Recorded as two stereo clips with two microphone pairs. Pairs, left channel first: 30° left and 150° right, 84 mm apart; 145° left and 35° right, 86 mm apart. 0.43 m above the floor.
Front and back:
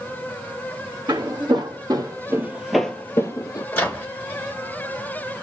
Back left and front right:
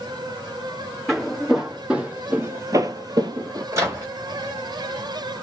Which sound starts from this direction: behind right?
Footsteps, at 1.1 s.